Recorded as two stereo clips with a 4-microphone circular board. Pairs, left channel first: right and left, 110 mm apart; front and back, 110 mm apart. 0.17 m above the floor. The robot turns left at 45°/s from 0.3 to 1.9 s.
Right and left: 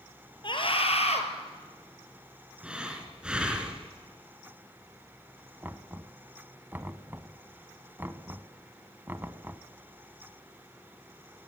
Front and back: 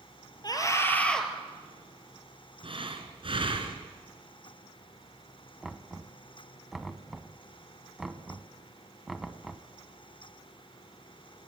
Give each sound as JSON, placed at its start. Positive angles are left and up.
{"t": 0.4, "sound": "a scream", "azimuth_deg": -50, "distance_m": 3.5}
{"t": 2.6, "sound": "breathing", "azimuth_deg": 170, "distance_m": 2.5}
{"t": 5.6, "sound": "knocking", "azimuth_deg": 100, "distance_m": 0.9}